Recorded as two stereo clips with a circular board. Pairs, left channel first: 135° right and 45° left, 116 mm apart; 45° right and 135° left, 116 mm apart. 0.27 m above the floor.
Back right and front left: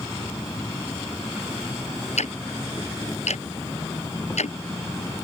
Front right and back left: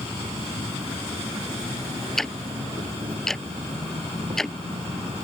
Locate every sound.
0.0 s an insect: 160° left
2.2 s ticking: 130° right